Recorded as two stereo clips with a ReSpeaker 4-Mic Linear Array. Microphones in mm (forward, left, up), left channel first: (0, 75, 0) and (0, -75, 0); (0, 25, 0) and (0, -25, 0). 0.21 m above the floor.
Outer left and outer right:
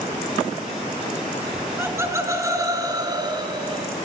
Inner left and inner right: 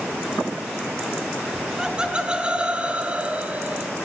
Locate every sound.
1.5 s laughter: 15° right (ahead or behind), 3.5 m; by 3.9 s 35° right (ahead or behind), 3.5 m